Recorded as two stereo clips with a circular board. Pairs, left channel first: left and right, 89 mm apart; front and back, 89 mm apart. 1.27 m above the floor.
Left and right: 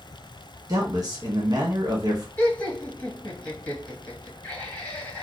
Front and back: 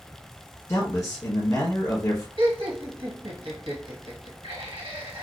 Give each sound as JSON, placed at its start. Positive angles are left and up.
{"t": 0.7, "sound": "a man speaking", "azimuth_deg": -50, "distance_m": 1.2}
{"t": 2.4, "sound": "laughter", "azimuth_deg": 165, "distance_m": 1.4}